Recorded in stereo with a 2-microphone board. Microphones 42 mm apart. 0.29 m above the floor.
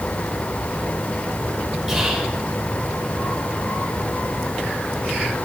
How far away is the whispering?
About 2.5 m.